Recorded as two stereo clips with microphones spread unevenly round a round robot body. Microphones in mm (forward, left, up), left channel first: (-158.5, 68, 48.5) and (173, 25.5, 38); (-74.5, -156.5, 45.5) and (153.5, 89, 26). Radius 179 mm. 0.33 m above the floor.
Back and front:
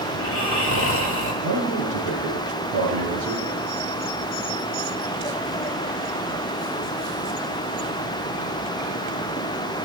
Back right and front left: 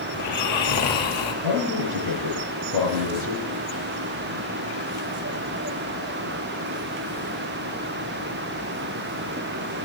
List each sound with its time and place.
0.1 s snoring: straight behind, 1.5 m
1.4 s a man speaking: 30° left, 5.5 m